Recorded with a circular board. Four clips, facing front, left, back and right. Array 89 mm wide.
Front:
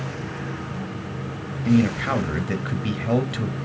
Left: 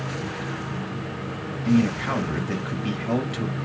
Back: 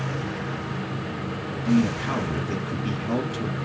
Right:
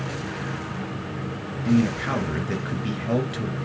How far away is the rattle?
No rattle in this recording.